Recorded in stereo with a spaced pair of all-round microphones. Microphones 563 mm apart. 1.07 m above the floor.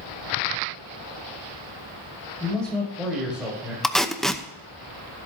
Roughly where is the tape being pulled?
Centre.